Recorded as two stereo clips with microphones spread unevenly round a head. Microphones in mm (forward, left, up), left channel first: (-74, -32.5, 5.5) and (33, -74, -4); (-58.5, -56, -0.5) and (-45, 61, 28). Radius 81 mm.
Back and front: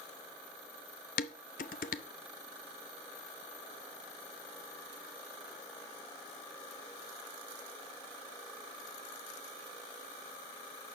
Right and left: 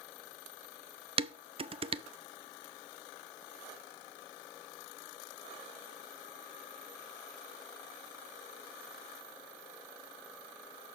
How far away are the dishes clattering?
About 0.6 m.